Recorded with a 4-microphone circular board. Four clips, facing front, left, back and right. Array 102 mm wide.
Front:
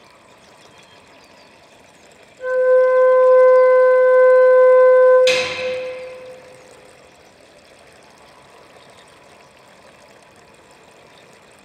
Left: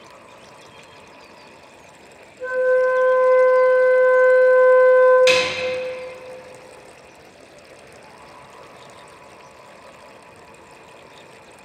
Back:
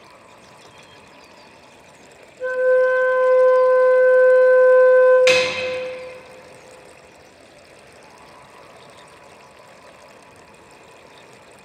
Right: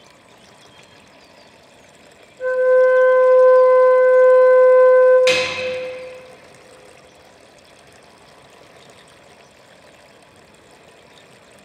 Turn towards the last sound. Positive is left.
turn(degrees=-165)